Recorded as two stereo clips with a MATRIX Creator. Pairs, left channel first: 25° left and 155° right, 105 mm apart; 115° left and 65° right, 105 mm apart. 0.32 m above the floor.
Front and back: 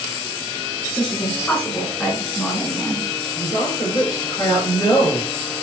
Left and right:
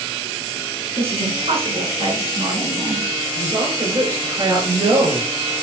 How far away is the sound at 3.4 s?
About 5 m.